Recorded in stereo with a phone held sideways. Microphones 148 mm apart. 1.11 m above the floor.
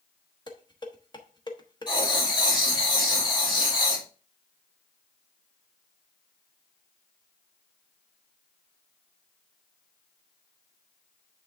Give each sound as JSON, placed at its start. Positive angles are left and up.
{"t": 0.5, "sound": "dishes clattering", "side_deg": 30, "distance_m": 1.1}
{"t": 1.9, "sound": "writing", "side_deg": 30, "distance_m": 2.5}